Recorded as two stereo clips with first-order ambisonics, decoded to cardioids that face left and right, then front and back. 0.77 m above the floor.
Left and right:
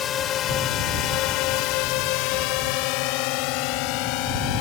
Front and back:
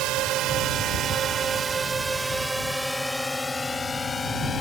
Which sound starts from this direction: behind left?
A drone, at 0.0 s.